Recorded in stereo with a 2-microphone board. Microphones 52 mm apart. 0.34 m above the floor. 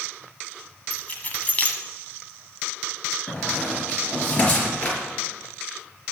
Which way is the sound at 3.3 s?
25° left (ahead or behind).